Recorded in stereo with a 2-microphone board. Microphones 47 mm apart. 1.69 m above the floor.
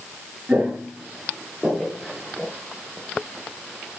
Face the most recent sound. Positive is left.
turn(degrees=10)  # may be behind; listen again after turning